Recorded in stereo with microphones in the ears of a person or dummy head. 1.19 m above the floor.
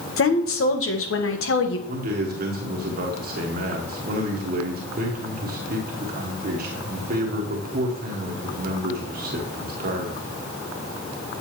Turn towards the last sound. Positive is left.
turn(degrees=-50)  # may be behind; listen again after turning